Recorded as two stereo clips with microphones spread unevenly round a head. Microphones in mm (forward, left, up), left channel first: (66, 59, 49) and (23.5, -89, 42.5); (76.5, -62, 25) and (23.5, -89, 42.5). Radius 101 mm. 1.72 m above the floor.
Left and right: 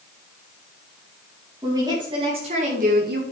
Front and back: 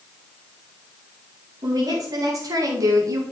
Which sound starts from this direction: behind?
A woman speaking, at 1.6 s.